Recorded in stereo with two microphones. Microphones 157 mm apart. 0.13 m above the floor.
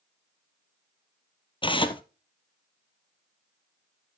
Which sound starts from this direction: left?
Tearing paper, at 1.6 s.